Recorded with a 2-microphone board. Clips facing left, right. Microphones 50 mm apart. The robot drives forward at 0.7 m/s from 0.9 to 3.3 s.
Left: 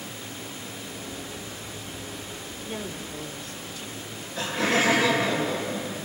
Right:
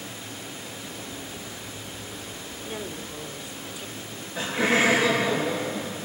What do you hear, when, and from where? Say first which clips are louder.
2.6 s a woman speaking: even; 10° right (ahead or behind), 1.3 m
4.0 s laughter: even; 15° right (ahead or behind), 7 m